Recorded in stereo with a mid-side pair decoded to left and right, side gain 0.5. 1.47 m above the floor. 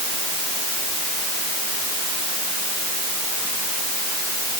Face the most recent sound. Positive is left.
No sound to turn to.